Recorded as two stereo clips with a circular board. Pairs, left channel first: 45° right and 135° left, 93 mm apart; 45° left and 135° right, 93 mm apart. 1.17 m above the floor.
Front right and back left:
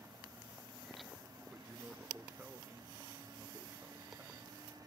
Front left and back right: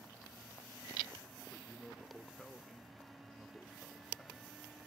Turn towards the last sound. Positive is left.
turn(degrees=135)